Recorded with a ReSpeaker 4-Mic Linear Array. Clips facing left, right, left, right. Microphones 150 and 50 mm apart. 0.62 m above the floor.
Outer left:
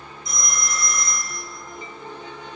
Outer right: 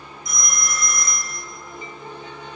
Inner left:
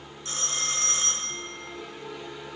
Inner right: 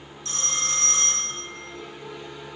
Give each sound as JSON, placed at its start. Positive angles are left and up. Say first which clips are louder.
{"t": 0.2, "sound": "a phone ringing", "louder": "even, inner right 2 dB", "side_deg": 30, "distance_m": 1.2}